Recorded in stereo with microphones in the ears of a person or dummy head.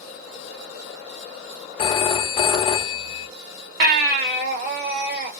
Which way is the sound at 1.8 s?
30° left (ahead or behind).